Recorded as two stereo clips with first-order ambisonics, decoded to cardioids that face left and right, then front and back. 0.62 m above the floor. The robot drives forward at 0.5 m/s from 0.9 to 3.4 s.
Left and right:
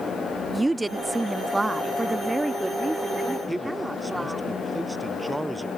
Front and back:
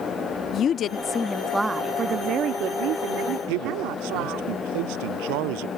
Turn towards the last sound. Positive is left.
turn(degrees=-175)